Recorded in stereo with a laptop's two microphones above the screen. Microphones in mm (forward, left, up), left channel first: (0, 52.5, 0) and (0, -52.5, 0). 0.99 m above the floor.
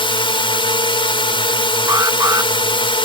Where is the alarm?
35° right (ahead or behind).